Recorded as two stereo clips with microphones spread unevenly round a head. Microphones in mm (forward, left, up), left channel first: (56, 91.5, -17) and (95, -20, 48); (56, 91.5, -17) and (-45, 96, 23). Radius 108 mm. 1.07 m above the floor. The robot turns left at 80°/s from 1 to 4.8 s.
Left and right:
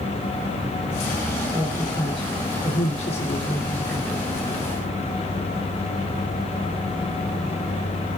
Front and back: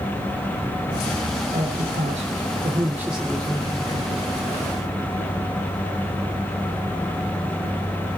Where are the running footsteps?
No running footsteps in this recording.